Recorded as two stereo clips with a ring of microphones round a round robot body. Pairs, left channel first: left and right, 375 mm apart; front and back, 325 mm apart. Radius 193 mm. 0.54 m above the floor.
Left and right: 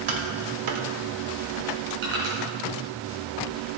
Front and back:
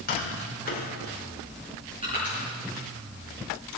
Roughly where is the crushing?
Right.